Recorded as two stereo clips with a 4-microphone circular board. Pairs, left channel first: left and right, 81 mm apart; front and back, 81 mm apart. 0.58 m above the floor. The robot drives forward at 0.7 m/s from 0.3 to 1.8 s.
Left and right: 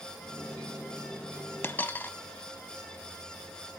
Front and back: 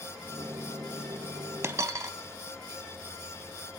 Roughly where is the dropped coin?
Behind left.